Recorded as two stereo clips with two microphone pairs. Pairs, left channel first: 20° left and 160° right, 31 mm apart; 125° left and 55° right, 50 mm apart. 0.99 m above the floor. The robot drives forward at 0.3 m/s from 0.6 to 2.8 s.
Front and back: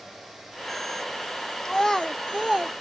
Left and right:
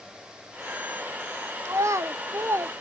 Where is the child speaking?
55° right, 0.6 m; by 2.7 s 85° right, 0.5 m.